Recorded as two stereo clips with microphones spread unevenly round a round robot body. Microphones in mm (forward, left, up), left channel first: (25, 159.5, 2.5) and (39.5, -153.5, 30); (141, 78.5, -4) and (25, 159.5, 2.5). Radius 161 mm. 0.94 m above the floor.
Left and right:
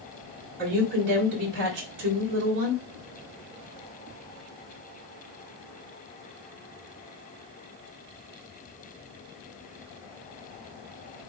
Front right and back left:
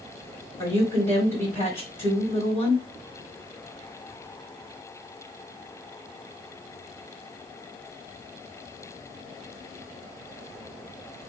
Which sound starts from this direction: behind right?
A woman speaking, at 0.6 s.